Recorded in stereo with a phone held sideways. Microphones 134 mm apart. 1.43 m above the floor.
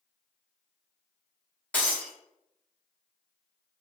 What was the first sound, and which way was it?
Breaking glass, 10° left (ahead or behind).